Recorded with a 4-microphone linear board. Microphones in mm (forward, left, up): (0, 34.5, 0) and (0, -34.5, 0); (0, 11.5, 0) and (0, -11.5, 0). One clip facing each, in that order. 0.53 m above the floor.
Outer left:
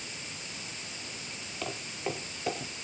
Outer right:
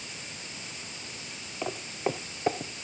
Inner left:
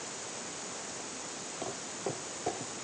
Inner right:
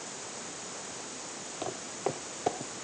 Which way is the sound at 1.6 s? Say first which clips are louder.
Outer right 5 dB, inner right 4 dB; 15° right (ahead or behind).